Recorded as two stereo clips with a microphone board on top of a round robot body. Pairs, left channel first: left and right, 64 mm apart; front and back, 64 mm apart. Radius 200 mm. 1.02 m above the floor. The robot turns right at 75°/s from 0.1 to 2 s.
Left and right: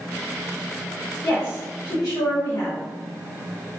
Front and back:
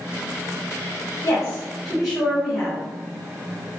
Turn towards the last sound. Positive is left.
turn(degrees=95)